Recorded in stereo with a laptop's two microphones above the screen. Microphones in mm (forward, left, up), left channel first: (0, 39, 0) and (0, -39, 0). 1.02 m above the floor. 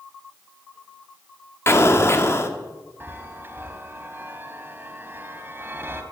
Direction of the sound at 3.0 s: 30° right (ahead or behind).